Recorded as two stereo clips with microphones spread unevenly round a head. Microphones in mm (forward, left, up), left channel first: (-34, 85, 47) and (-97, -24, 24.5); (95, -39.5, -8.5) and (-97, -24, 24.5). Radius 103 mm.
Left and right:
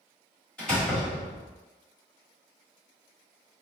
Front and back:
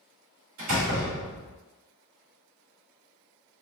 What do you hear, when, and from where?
0.6 s a door slam: 145° left, 1.9 m